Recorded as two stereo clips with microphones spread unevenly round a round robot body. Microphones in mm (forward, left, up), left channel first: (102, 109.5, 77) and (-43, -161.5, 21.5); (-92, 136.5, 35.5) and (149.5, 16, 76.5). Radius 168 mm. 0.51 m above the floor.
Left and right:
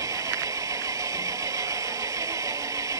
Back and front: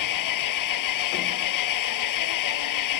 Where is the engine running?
160° left.